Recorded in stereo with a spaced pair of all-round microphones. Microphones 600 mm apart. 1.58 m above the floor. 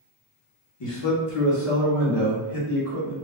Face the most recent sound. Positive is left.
turn(degrees=65)  # may be behind; listen again after turning